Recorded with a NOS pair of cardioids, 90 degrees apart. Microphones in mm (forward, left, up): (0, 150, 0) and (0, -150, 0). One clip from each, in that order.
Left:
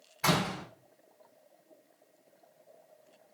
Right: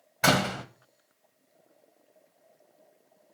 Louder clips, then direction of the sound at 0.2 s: Right 5 dB; 55° right.